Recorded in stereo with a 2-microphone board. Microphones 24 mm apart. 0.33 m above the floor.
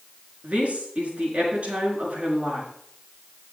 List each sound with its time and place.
0.4 s a woman speaking: 65° right (ahead or behind), 5 m